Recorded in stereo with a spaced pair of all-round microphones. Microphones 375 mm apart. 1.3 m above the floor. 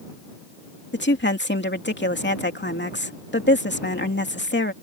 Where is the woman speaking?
25° left (ahead or behind).